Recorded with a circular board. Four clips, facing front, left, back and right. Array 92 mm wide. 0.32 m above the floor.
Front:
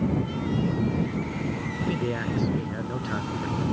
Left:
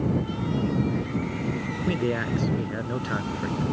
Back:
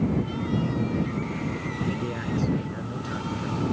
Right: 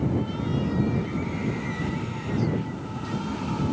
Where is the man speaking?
70° left.